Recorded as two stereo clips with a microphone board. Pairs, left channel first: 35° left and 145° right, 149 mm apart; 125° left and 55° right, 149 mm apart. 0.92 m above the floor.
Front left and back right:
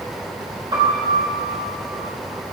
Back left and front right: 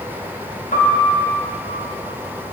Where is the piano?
155° left, 4 m.